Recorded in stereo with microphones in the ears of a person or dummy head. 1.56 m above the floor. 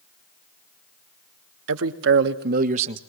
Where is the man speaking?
75° right (ahead or behind), 1.5 m; by 3.0 s 35° right (ahead or behind), 1.3 m.